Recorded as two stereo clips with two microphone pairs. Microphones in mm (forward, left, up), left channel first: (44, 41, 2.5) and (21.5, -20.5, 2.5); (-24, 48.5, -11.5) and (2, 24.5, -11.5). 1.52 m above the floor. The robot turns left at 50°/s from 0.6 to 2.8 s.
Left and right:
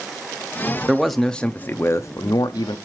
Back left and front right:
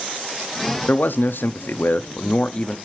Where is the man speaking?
165° left, 0.5 m; by 2.8 s 75° left, 0.5 m.